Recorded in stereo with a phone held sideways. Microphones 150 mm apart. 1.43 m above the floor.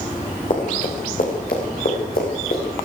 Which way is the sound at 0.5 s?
60° left (ahead or behind).